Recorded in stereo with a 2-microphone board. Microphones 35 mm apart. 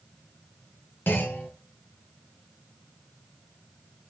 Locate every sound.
1.1 s a clunk: 70° left (ahead or behind), 4 m